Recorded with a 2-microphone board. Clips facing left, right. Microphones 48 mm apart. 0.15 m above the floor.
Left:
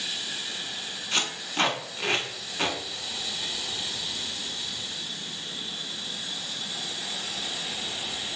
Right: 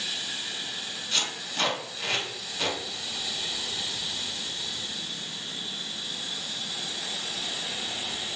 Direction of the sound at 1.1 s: 35° left (ahead or behind).